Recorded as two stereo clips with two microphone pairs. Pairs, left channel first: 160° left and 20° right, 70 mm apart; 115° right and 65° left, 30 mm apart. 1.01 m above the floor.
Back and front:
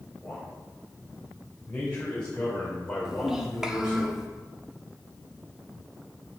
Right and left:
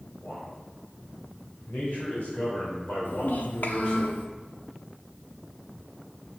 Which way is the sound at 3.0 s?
100° right.